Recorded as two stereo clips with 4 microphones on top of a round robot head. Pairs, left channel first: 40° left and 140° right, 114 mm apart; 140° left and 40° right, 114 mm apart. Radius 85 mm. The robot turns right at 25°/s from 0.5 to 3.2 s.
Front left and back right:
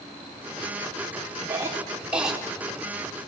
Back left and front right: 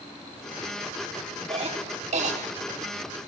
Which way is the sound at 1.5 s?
75° right.